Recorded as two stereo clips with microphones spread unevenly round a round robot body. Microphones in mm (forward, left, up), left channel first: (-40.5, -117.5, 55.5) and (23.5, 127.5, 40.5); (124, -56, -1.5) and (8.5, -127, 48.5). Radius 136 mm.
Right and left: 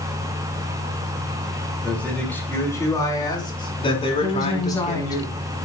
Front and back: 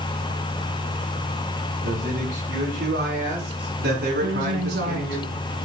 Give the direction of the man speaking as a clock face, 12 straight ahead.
6 o'clock.